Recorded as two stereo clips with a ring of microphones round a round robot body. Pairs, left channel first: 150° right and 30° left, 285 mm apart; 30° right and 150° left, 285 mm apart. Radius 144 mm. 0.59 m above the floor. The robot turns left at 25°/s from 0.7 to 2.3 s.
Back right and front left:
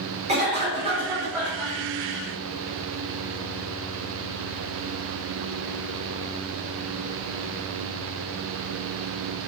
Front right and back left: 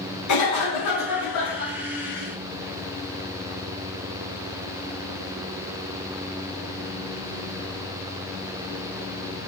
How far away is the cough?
About 1.7 m.